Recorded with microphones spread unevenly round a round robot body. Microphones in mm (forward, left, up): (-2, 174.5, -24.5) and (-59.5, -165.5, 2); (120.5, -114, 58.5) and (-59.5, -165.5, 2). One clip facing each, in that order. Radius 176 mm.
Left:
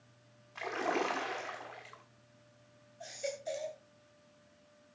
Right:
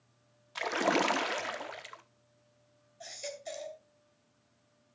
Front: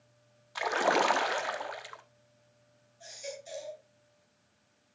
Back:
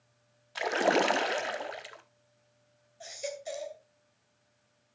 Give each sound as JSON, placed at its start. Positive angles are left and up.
{"t": 0.6, "sound": "a splash", "azimuth_deg": -115, "distance_m": 1.1}
{"t": 3.0, "sound": "a baby crying", "azimuth_deg": -165, "distance_m": 2.5}